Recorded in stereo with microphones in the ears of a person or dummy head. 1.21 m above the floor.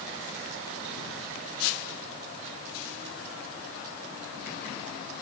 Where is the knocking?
I don't hear knocking.